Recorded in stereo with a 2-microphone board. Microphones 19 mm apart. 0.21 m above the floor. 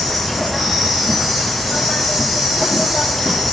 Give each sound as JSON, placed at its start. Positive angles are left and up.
{"t": 0.0, "sound": "an insect", "side_deg": -10, "distance_m": 1.0}